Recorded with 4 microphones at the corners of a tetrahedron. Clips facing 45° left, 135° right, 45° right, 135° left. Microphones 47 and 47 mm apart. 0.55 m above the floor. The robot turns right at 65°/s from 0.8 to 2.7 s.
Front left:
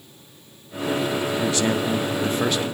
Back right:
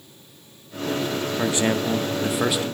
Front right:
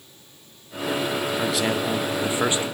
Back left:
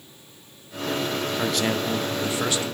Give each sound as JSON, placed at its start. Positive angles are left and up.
{"t": 1.4, "sound": "a man speaking", "azimuth_deg": -135, "distance_m": 0.6}